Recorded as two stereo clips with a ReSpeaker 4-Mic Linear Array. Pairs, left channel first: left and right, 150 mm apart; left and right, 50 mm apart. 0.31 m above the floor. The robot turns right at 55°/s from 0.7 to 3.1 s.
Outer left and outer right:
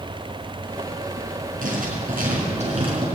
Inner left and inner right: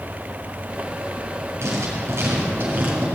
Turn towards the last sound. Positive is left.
turn(degrees=-25)